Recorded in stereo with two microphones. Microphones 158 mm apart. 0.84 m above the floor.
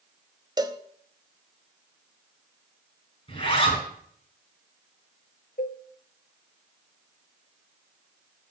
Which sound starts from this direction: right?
A cowbell, at 0.6 s.